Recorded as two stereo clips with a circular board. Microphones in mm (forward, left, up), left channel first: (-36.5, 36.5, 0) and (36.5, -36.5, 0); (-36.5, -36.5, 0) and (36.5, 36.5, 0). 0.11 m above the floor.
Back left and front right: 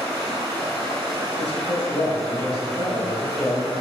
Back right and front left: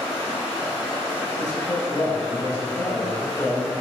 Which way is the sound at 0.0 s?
60° right.